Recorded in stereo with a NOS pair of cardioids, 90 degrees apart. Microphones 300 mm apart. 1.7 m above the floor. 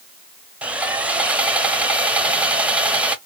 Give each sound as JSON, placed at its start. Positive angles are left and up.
{"t": 0.6, "sound": "sawing", "azimuth_deg": -5, "distance_m": 0.5}